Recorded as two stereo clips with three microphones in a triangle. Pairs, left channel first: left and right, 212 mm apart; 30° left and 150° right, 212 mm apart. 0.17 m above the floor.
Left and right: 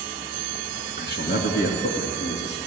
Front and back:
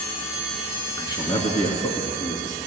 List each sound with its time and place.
1.0 s a man speaking: 95° left, 1.9 m; by 2.6 s 75° left, 2.5 m